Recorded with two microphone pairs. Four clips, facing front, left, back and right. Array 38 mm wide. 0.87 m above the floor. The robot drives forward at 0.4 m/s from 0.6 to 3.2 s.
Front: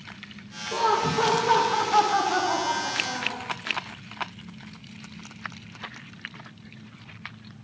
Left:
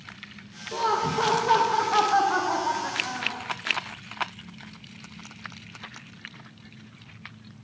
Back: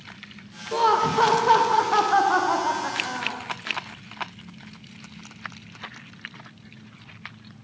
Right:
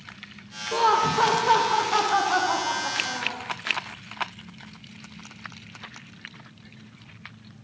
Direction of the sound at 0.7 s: 115° right.